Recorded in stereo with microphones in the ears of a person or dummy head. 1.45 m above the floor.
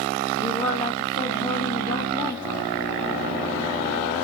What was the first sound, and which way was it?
A woman speaking, 20° left (ahead or behind).